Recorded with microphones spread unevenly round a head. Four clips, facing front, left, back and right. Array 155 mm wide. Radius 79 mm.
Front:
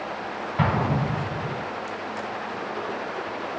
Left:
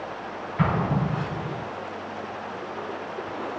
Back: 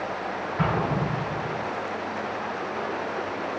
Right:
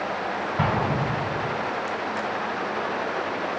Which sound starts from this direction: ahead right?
An explosion, at 0.6 s.